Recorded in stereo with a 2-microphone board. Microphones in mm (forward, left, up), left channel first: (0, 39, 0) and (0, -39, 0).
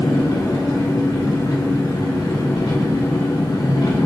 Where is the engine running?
65° left (ahead or behind), 2.5 m.